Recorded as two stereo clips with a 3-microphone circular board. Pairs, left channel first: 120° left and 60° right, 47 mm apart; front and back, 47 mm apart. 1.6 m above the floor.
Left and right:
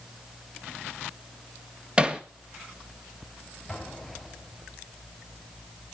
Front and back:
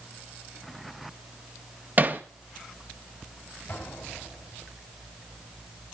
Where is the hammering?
130° right, 1.7 m.